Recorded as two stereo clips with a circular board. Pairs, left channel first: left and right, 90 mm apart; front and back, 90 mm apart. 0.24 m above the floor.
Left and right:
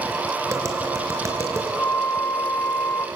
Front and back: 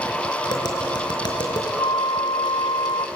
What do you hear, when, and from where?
0.5 s tapping: 35° right, 4 m
1.8 s a flute: 25° left, 0.7 m